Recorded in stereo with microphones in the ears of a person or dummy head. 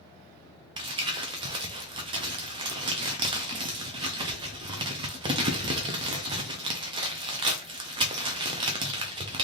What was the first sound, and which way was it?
Crumpling, 25° right (ahead or behind).